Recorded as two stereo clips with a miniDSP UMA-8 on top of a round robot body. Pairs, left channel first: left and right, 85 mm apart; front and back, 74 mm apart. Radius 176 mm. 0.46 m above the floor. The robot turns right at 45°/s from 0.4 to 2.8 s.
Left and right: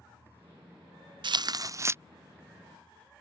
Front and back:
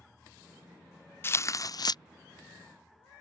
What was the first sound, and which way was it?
Tearing paper, 60° right.